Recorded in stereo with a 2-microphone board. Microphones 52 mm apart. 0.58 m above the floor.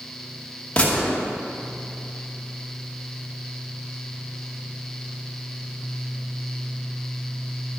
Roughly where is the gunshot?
Left.